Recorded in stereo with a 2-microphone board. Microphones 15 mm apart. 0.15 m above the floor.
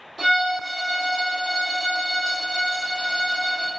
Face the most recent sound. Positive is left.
turn(degrees=-5)  # may be behind; listen again after turning